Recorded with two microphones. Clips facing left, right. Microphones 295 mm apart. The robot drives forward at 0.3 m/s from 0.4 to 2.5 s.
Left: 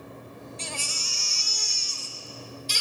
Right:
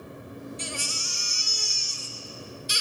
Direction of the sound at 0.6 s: 15° right (ahead or behind).